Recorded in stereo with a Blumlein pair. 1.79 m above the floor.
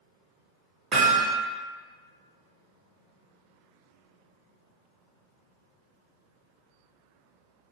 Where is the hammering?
25° right, 1.1 m.